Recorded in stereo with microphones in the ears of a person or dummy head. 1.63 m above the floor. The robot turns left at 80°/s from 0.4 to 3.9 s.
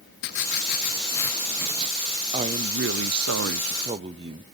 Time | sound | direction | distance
0.2 | writing | 80° left | 0.9 m
2.3 | a woman speaking | 25° right | 0.6 m